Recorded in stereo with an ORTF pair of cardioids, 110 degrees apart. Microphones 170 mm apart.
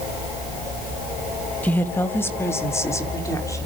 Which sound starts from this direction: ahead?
A woman speaking, at 1.6 s.